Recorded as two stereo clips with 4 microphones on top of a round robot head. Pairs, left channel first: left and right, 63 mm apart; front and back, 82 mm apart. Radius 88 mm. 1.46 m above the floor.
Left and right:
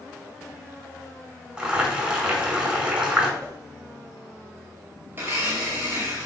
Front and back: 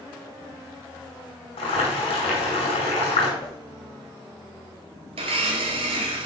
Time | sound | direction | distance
1.6 | boiling | 15° right | 5 m
3.4 | a whoosh | 25° right | 4.5 m
5.1 | a blender | 160° right | 1.8 m